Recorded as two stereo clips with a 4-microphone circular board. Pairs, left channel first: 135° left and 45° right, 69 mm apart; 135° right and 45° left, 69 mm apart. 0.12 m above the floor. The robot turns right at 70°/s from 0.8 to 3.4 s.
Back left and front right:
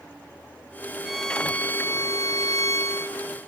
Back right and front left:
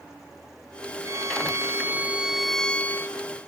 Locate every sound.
1.1 s a violin: 35° left, 0.7 m; by 3.2 s 175° right, 0.7 m